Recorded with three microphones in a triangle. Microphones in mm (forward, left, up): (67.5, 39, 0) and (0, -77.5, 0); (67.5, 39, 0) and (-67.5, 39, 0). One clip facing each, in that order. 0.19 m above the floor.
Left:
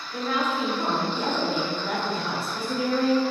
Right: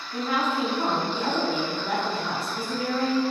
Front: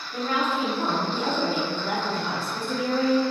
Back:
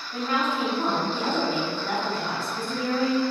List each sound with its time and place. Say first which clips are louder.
0.1 s a woman speaking: even, even; 135° right, 1.7 m; by 3.2 s 30° left, 1.6 m